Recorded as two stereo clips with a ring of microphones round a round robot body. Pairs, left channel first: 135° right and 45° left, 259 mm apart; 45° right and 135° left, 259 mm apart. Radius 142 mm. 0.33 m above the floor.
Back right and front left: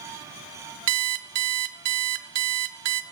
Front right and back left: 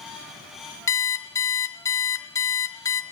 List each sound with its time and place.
0.9 s an alarm clock: 35° left, 0.7 m